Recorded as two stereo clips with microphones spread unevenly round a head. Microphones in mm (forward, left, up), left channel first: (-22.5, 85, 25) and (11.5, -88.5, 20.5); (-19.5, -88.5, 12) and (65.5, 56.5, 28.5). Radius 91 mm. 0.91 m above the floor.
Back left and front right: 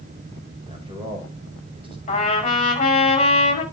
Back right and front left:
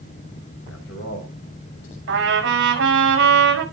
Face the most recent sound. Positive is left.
turn(degrees=40)